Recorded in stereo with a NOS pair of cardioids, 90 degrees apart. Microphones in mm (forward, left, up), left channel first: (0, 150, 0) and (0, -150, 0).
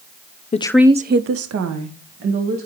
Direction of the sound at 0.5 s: 25° left.